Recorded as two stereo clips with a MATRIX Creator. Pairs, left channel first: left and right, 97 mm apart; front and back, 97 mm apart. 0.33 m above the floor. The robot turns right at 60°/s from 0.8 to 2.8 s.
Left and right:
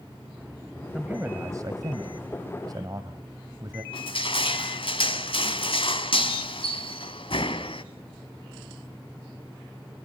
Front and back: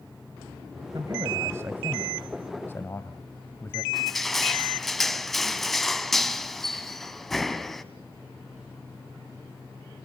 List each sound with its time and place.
0.9 s a man speaking: 165° right, 1.6 m; by 3.8 s 55° right, 1.6 m
3.9 s crushing: 90° left, 1.5 m